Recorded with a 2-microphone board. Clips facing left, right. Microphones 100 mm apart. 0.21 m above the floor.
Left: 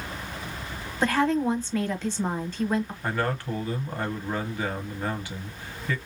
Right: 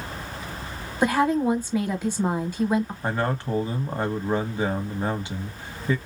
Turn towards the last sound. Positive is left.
turn(degrees=-20)  # may be behind; listen again after turning